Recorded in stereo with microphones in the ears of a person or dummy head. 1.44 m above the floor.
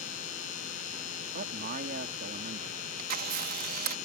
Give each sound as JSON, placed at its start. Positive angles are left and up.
{"t": 0.0, "sound": "a machine running", "side_deg": 45}
{"t": 1.3, "sound": "a man speaking", "side_deg": -50}
{"t": 3.0, "sound": "a camera shutter", "side_deg": -55}